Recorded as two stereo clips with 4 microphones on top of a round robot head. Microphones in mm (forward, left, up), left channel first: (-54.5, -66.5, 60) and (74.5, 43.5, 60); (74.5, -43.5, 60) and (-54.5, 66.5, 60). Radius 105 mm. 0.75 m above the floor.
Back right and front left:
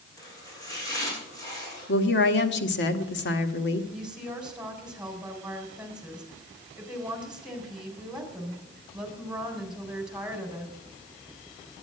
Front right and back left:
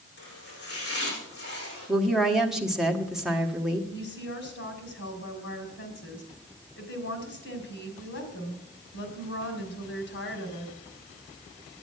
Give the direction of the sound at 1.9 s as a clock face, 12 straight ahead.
4 o'clock.